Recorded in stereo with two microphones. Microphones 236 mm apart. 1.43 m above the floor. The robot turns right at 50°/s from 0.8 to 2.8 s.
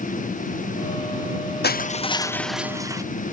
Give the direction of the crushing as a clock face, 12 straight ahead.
7 o'clock.